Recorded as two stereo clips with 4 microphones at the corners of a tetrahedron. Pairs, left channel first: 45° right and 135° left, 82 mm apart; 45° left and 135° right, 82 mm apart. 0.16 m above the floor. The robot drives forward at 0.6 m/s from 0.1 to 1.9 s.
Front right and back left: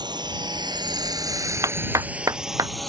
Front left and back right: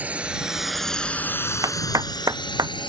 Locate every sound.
0.0 s a drone: 155° left; by 2.9 s 40° left
1.6 s a clap: straight behind